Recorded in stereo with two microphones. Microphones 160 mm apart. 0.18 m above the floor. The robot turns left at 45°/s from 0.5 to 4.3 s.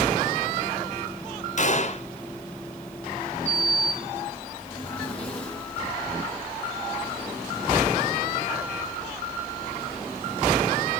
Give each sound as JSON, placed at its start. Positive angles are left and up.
{"t": 1.6, "sound": "a gunshot", "side_deg": 50, "distance_m": 1.7}
{"t": 3.5, "sound": "a sliding door", "azimuth_deg": 45, "distance_m": 7.0}